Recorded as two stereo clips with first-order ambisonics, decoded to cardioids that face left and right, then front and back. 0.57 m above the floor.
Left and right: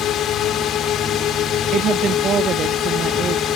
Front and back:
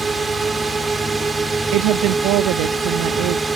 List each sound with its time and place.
0.0 s a drone: 110° left
1.7 s a woman speaking: 150° right